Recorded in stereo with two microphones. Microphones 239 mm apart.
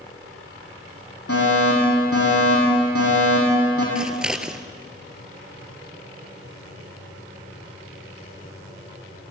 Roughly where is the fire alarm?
Left.